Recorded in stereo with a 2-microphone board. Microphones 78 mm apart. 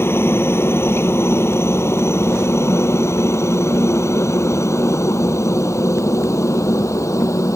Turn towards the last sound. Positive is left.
turn(degrees=45)  # may be behind; listen again after turning